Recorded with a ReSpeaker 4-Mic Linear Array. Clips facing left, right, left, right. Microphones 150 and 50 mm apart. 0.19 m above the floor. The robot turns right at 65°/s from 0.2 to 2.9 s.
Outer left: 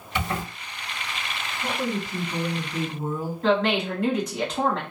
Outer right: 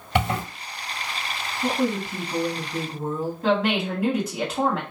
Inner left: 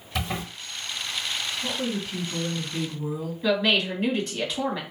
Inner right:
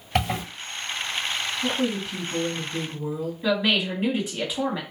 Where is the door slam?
I don't hear a door slam.